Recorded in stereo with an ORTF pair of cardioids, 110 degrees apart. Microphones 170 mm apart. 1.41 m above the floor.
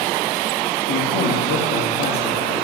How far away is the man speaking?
About 3 m.